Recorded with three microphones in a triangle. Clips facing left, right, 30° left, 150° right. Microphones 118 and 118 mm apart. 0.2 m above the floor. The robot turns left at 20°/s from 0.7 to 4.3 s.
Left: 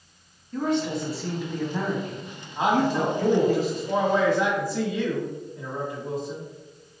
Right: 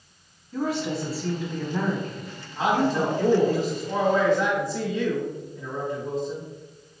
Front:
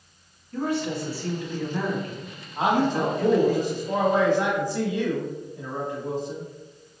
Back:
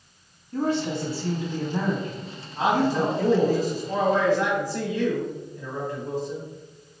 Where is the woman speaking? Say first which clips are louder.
Left 2 dB, back 2 dB; 170° right, 1.0 m; by 3.6 s 135° left, 1.0 m.